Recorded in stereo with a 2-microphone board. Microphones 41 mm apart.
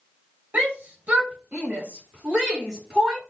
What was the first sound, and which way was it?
A shout, 45° right (ahead or behind).